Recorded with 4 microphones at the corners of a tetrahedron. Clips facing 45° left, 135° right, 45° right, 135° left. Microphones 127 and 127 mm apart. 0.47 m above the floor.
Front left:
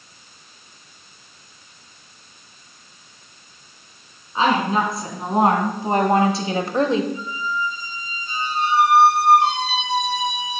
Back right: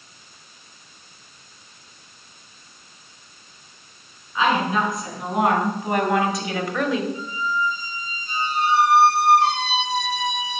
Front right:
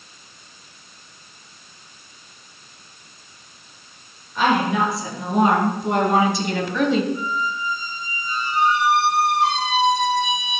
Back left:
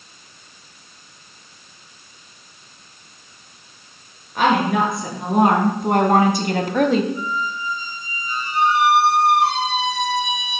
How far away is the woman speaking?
About 5 m.